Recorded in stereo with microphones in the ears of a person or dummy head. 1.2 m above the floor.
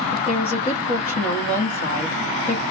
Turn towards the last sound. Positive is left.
turn(degrees=35)  # may be behind; listen again after turning